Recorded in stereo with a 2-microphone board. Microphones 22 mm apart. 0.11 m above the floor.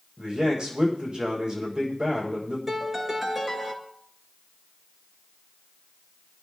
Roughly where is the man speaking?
Right.